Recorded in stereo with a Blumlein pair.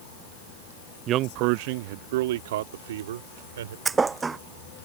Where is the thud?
15° right.